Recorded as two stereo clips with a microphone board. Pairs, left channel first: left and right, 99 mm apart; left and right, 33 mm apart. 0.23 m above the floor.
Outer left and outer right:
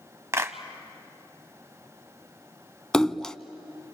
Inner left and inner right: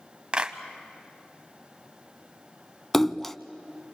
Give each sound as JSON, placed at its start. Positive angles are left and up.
{"t": 0.3, "sound": "a clap", "side_deg": -30, "distance_m": 0.9}
{"t": 2.9, "sound": "a splash", "side_deg": 5, "distance_m": 0.6}